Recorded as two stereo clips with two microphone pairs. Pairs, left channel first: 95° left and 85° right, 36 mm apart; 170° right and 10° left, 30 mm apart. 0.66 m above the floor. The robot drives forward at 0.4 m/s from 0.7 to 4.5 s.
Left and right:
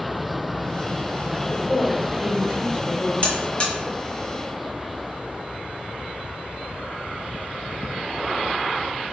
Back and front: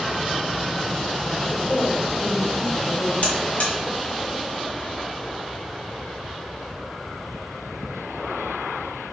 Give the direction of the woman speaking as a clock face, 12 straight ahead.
7 o'clock.